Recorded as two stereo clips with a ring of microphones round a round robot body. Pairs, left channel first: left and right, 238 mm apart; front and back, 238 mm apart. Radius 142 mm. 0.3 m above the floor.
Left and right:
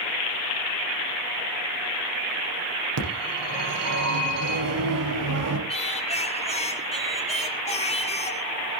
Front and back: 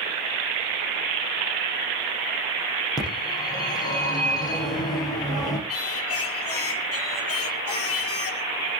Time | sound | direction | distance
3.0 | a phone ringing | 75° right | 9 m
5.7 | singing | 25° left | 4 m